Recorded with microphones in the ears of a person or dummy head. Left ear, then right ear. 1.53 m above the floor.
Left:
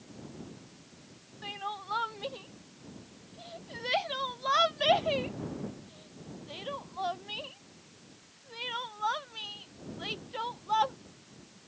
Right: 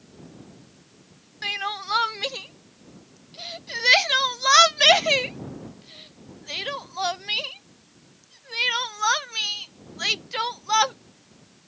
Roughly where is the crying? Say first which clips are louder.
Right 10 dB; right.